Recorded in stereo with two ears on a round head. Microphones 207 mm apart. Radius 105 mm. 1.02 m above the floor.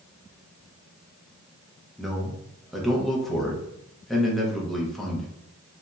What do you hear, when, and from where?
2.0 s a man speaking: centre (ahead or behind), 0.7 m